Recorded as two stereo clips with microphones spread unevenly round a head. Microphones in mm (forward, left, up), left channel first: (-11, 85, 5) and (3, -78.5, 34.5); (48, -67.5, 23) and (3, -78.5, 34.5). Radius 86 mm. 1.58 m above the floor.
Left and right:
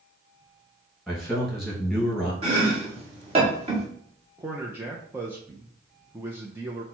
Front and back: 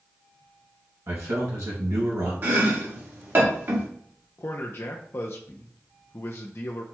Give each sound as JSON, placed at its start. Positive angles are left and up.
{"t": 1.1, "sound": "a man speaking", "azimuth_deg": -175, "distance_m": 2.0}
{"t": 2.4, "sound": "chopping", "azimuth_deg": -135, "distance_m": 1.5}
{"t": 4.4, "sound": "a man speaking", "azimuth_deg": -5, "distance_m": 0.6}